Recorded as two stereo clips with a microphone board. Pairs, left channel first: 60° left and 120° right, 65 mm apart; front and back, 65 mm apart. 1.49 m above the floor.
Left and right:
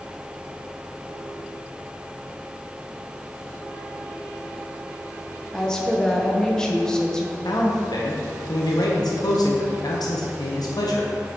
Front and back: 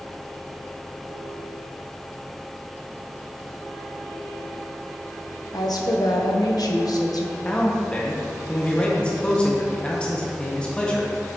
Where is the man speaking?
75° left, 0.9 m.